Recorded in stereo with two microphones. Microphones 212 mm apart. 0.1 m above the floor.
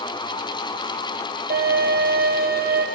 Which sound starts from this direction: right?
A violin, at 1.5 s.